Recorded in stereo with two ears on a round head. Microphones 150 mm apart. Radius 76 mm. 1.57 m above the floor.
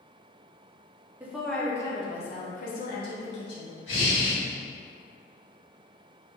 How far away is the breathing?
About 1.7 m.